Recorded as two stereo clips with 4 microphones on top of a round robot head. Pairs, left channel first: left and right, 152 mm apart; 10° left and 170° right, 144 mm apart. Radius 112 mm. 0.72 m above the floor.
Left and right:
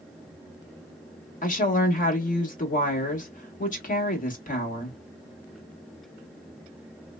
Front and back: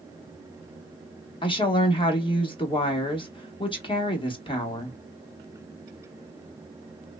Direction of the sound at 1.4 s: 65° left.